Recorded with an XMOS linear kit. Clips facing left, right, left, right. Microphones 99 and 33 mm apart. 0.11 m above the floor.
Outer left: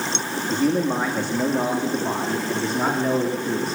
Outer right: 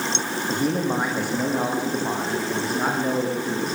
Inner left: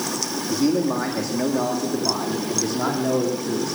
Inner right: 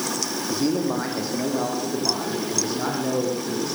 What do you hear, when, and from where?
0.5 s a man speaking: 15° right (ahead or behind), 6.5 m; by 3.8 s centre (ahead or behind), 8 m